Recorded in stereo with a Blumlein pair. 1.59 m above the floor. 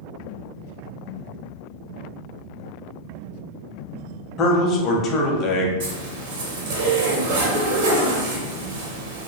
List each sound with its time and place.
4.4 s a man speaking: 30° left, 0.6 m
5.8 s a zipper: 55° right, 0.7 m